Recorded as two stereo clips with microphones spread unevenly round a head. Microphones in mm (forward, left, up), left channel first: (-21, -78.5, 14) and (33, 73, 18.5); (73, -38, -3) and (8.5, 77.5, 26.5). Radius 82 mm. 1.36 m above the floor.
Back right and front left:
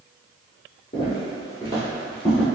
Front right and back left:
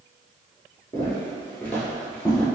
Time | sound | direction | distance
0.9 | footsteps | 145° right | 1.6 m